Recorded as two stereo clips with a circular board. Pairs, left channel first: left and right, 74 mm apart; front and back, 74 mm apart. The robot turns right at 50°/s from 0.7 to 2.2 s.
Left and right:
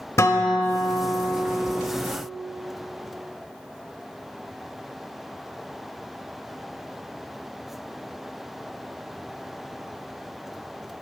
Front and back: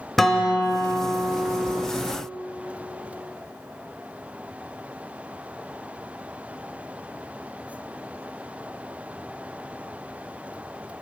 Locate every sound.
0.2 s a guitar: 85° left, 1.0 m; by 1.8 s 140° left, 1.0 m